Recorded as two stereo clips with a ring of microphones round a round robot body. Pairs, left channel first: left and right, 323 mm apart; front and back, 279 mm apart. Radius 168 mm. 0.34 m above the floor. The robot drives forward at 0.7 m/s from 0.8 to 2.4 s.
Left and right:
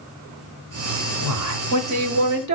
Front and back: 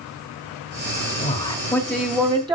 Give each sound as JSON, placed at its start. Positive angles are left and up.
{"t": 1.2, "sound": "a man speaking", "azimuth_deg": -65, "distance_m": 1.5}